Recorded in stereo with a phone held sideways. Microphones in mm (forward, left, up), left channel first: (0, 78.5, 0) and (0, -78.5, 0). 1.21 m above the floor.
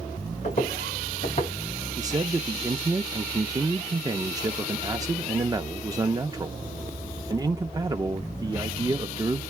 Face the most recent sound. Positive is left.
turn(degrees=-25)  # may be behind; listen again after turning